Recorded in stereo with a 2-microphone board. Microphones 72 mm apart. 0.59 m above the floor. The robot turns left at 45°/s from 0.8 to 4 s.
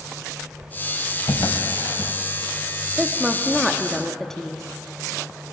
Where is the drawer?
70° left (ahead or behind), 0.7 m; by 2.1 s 55° left (ahead or behind), 0.7 m.